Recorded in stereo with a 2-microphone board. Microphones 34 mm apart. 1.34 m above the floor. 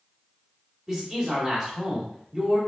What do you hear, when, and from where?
0.9 s a man speaking: 25° right (ahead or behind), 2 m